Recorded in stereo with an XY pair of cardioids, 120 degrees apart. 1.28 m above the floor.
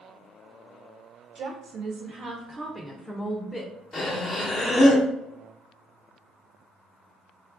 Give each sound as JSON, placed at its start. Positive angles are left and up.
{"t": 1.4, "sound": "a woman speaking", "azimuth_deg": -60, "distance_m": 1.2}
{"t": 3.9, "sound": "breathing", "azimuth_deg": 30, "distance_m": 1.0}